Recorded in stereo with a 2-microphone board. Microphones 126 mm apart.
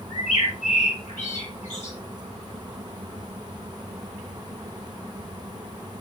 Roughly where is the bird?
Left.